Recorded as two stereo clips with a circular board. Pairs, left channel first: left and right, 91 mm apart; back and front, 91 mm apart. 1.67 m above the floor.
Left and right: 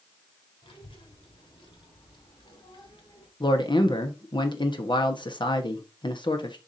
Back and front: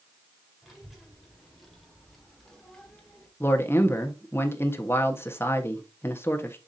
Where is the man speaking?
115° left, 1.2 m.